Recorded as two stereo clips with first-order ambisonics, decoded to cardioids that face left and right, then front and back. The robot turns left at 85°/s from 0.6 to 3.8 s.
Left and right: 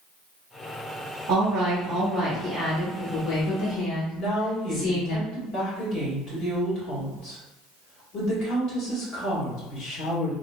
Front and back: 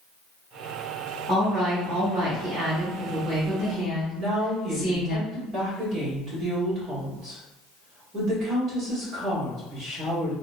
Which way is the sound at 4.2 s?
125° left.